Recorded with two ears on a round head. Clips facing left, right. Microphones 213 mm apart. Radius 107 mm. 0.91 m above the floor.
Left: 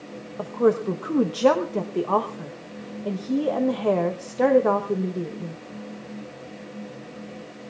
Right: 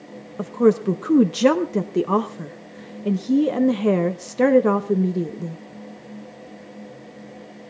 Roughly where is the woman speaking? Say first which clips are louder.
Right 3 dB; right.